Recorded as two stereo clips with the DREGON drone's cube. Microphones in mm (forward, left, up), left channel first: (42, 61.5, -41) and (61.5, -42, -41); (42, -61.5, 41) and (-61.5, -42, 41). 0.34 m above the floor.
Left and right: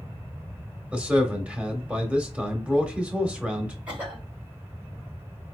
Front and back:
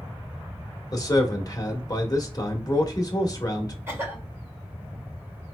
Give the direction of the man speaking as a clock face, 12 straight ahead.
12 o'clock.